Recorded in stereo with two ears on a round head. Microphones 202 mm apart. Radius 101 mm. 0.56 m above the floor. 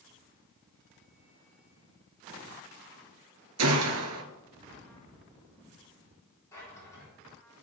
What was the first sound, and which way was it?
A gunshot, 75° right (ahead or behind).